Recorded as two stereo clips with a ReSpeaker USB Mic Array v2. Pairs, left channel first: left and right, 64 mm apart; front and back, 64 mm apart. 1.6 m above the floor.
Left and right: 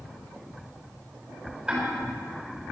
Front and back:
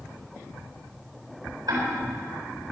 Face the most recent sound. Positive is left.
turn(degrees=-160)